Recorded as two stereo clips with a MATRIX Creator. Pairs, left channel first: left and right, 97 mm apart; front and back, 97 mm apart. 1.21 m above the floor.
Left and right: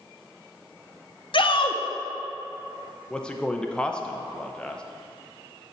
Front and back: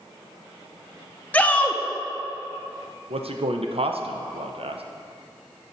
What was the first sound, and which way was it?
A shout, 75° left.